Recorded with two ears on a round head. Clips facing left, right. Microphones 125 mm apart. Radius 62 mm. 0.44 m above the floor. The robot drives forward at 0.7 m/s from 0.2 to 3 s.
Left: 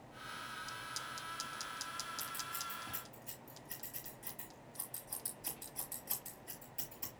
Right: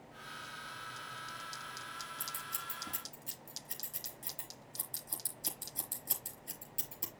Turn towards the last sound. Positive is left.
turn(degrees=-35)  # may be behind; listen again after turning